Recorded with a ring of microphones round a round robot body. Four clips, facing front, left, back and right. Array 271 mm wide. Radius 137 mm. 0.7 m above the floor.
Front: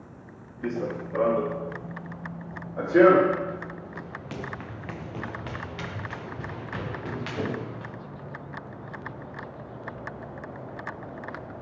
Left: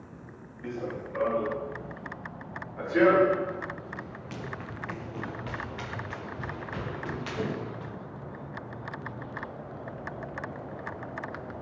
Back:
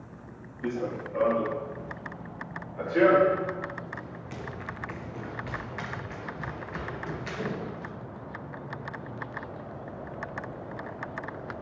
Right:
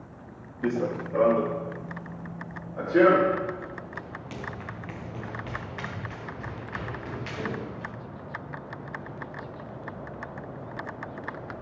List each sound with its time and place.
0.6 s running footsteps: 70° right, 2 m; by 7.9 s 10° left, 5 m